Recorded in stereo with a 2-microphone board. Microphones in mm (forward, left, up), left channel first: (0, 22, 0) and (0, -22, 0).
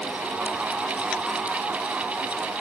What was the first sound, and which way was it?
Only background noise.